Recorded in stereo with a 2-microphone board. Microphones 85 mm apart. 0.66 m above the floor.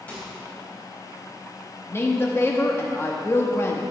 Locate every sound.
0.1 s a microwave: 15° left (ahead or behind), 3.5 m
1.9 s a woman speaking: 30° left (ahead or behind), 1.0 m